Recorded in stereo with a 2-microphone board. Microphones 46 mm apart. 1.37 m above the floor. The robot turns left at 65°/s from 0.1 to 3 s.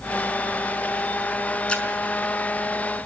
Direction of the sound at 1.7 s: 20° left (ahead or behind).